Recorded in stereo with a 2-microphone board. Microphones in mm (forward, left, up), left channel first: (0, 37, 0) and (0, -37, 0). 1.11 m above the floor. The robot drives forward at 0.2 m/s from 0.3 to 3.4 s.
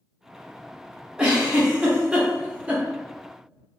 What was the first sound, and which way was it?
A giggle, 15° right (ahead or behind).